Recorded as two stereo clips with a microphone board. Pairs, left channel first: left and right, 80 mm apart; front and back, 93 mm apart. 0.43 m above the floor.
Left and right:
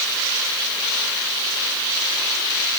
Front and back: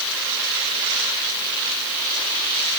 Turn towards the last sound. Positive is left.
No sound to turn to.